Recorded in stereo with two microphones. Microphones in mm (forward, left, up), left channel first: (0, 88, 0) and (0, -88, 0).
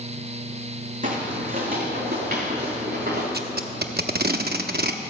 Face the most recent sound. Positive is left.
turn(degrees=-65)  # may be behind; listen again after turning